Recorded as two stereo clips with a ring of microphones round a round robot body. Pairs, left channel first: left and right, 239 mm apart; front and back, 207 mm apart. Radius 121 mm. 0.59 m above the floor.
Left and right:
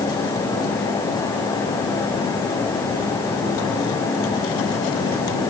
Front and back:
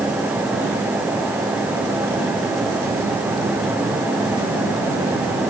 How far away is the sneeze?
I don't hear a sneeze.